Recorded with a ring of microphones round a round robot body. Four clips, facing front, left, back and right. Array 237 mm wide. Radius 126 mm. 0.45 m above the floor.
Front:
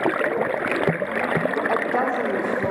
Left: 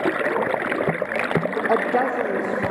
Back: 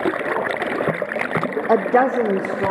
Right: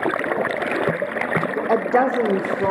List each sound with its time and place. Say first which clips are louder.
1.7 s a woman speaking: right 3 dB, back 6 dB; 175° right, 0.9 m; by 2.7 s 130° right, 1.5 m